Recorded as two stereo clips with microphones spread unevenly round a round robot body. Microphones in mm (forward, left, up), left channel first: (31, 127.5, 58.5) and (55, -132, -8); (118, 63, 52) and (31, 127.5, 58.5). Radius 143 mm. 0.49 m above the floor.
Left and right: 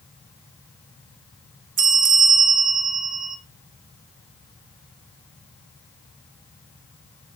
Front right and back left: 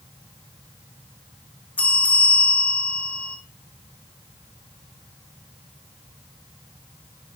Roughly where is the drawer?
No drawer in this recording.